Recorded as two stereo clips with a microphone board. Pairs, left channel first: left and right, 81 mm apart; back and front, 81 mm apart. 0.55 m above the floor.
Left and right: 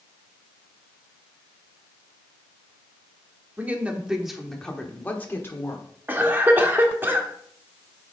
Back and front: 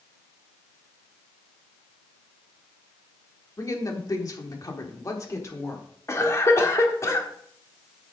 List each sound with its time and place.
3.6 s a woman speaking: 150° right, 1.3 m; by 5.8 s 135° left, 1.6 m
6.1 s a cough: 145° right, 1.5 m